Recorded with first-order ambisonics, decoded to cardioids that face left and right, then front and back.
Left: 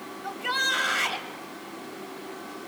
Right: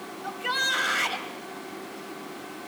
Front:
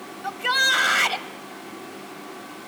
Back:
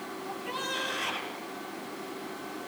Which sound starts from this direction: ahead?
A shout, at 0.2 s.